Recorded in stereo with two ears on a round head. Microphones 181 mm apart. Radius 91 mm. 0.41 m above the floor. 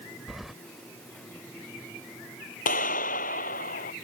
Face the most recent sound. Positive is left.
turn(degrees=40)  # may be behind; listen again after turning